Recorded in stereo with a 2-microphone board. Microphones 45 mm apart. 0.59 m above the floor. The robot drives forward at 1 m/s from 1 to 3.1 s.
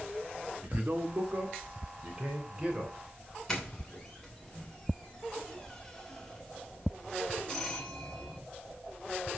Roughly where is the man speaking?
Right.